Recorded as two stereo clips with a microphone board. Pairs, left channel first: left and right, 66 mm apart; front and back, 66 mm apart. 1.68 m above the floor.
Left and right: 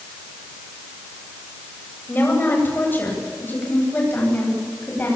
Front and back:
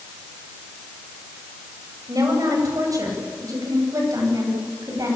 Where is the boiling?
I don't hear boiling.